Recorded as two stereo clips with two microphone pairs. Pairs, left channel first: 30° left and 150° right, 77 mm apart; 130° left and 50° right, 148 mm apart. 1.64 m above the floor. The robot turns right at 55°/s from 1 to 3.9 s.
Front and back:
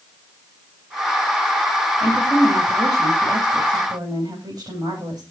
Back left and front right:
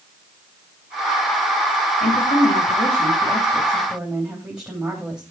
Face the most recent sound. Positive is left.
turn(degrees=-135)